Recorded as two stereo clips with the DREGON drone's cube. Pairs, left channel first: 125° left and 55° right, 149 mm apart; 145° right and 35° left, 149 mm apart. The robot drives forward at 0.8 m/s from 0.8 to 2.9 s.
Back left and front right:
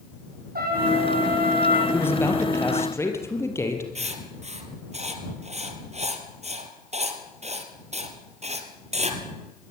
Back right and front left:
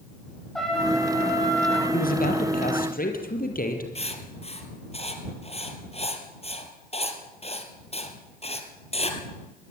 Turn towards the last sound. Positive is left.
turn(degrees=-100)